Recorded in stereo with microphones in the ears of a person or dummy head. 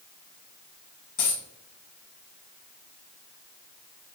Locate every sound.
1.2 s a dropped coin: 40° left (ahead or behind), 2 m